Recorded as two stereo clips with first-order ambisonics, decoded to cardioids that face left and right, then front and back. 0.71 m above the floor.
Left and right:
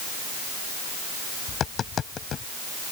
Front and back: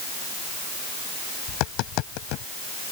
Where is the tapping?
30° left.